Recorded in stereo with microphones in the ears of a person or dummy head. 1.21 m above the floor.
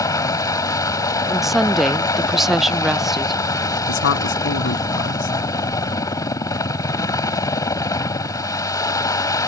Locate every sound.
0.0 s a helicopter: 20° left (ahead or behind)
1.3 s a woman speaking: centre (ahead or behind)
3.9 s a man speaking: 65° left (ahead or behind)